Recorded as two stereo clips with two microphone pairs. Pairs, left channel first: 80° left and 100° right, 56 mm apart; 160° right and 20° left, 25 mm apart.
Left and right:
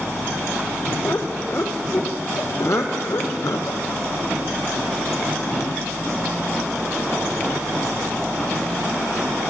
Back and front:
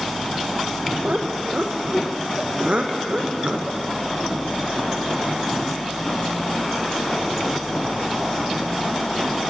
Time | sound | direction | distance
1.0 | laughter | 35° left | 4 m